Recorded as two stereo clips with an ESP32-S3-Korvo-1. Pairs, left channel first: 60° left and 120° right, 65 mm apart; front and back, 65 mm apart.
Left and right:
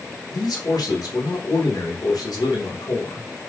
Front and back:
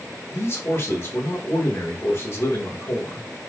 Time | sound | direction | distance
0.3 | a man speaking | 50° left | 1.9 m